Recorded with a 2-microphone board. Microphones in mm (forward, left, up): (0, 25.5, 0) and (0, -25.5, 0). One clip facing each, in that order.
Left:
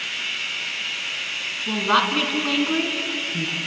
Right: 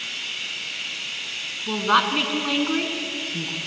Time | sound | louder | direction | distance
0.0 | running water | left 4 dB | 45° left (ahead or behind) | 6.5 m
1.7 | a woman speaking | even | 5° right (ahead or behind) | 2.5 m